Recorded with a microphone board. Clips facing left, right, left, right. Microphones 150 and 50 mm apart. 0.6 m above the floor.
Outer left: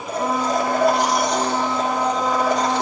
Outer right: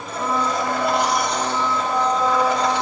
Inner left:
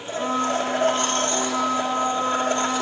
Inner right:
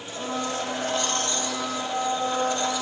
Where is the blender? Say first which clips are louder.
Outer left 2 dB, inner left 7 dB; 45° left (ahead or behind), 1.8 m.